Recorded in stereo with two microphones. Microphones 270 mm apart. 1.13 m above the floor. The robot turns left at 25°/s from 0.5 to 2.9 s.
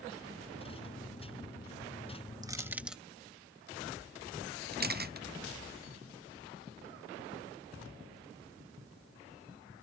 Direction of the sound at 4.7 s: 35° right (ahead or behind).